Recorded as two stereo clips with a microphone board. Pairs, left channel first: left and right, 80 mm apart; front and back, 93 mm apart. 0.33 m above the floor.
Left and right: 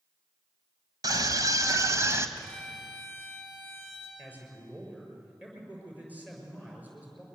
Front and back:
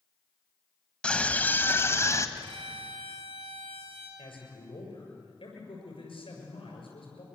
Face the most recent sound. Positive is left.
turn(degrees=-20)